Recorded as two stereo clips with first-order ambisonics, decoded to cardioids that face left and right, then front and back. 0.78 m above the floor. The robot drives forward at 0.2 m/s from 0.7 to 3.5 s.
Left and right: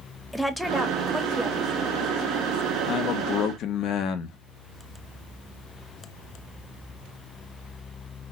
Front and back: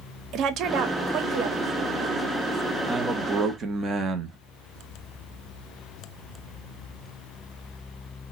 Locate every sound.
0.3 s a woman speaking: 175° left, 0.6 m
2.9 s a man speaking: 105° left, 0.6 m; by 4.4 s 120° left, 0.7 m